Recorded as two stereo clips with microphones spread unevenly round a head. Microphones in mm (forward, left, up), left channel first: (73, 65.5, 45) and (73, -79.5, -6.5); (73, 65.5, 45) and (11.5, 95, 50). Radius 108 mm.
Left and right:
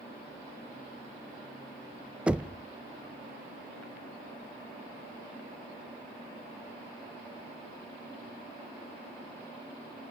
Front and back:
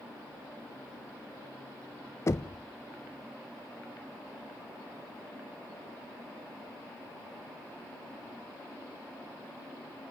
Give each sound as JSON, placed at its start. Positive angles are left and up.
{"t": 2.3, "sound": "knocking", "azimuth_deg": 10, "distance_m": 0.6}